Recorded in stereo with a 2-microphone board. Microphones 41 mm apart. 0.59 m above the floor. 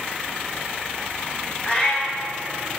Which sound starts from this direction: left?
A cat meowing, at 1.6 s.